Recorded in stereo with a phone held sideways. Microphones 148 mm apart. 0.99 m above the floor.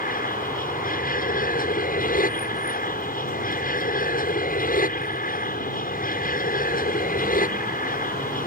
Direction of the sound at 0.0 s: 65° left (ahead or behind).